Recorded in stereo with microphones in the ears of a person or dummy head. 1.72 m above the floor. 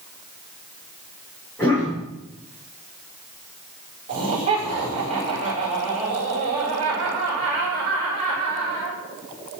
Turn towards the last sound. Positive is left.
turn(degrees=-30)  # may be behind; listen again after turning